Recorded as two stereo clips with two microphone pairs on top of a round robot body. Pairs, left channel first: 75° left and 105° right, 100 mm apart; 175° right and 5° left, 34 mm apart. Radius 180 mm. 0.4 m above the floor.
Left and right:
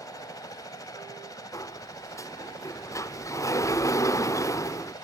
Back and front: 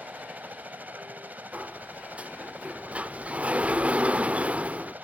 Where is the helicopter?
25° left.